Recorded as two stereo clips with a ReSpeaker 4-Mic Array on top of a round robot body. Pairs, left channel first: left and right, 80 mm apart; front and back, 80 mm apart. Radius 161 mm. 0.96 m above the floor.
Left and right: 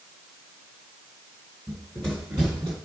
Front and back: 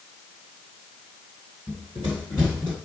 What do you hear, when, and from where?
1.7 s running footsteps: 50° left, 0.9 m; by 2.8 s 55° right, 1.0 m